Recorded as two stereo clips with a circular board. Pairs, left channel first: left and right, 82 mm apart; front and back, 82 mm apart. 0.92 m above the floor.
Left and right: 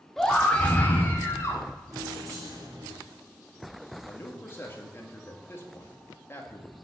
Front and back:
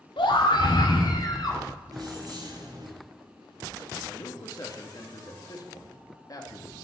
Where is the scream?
5° left, 1.6 m; by 1.6 s 35° left, 3 m.